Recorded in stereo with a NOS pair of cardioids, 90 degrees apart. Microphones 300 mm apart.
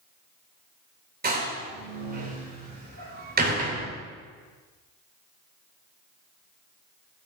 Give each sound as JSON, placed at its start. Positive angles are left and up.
{"t": 1.2, "sound": "a door slam", "azimuth_deg": -30, "distance_m": 3.5}